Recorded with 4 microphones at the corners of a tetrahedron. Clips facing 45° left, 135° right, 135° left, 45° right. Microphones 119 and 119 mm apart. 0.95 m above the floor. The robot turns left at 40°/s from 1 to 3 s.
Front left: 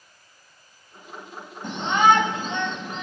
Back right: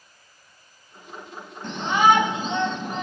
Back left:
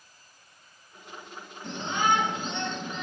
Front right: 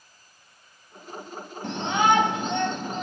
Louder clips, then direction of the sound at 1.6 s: Even, front right 5 dB; 25° right.